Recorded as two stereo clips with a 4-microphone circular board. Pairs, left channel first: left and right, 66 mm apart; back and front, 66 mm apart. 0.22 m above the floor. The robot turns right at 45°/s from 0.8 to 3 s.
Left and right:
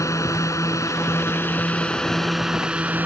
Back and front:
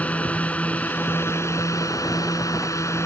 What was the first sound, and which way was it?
A drone, 115° left.